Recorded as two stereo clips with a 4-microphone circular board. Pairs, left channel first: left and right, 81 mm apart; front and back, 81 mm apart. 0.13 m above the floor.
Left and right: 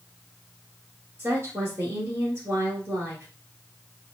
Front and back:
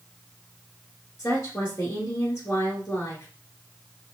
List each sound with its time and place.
1.2 s a woman speaking: 45° right, 1.7 m